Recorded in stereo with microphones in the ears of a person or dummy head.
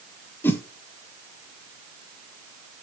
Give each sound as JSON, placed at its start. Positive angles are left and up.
{"t": 0.4, "sound": "a whoosh", "side_deg": 10, "distance_m": 0.8}